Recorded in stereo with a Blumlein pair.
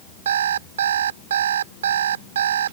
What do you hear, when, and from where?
0.2 s an alarm clock: 65° right